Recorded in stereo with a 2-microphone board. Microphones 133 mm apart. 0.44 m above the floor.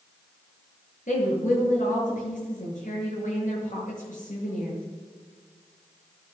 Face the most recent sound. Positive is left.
turn(degrees=75)  # may be behind; listen again after turning